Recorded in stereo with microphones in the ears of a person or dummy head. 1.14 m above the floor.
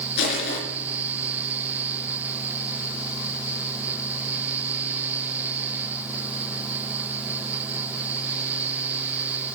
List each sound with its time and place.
0.2 s crushing: 70° left (ahead or behind), 4 m